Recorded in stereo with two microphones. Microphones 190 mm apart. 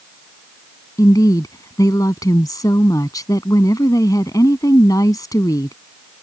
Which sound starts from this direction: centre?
A woman speaking, at 1.0 s.